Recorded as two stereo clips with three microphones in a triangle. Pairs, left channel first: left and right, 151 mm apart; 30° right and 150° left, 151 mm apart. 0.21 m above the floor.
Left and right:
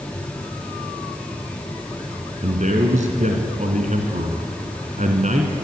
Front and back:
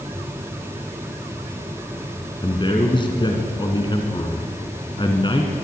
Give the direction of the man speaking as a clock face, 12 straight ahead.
3 o'clock.